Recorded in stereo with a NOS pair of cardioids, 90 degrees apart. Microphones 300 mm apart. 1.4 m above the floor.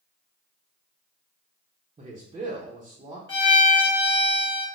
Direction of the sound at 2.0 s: 20° right.